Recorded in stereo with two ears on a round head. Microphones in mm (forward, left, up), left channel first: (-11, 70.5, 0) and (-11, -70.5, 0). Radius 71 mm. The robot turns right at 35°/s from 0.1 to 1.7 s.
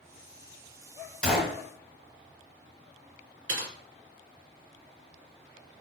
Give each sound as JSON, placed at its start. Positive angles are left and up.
{"t": 1.2, "sound": "a gunshot", "side_deg": 5, "distance_m": 0.7}
{"t": 3.5, "sound": "typing on a keyboard", "side_deg": -85, "distance_m": 1.3}